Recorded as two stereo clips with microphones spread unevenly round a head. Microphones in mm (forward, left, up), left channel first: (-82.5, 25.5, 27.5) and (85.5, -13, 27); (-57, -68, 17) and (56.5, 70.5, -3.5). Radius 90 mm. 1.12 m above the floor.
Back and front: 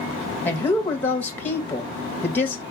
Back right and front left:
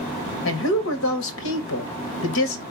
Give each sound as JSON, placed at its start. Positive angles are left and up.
{"t": 0.5, "sound": "a woman speaking", "azimuth_deg": -115, "distance_m": 1.4}